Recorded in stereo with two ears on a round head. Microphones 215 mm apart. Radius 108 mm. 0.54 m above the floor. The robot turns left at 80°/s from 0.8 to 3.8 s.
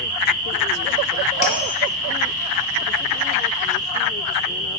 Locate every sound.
1.4 s a bell: 30° left (ahead or behind), 1.5 m; by 1.7 s 55° left (ahead or behind), 1.5 m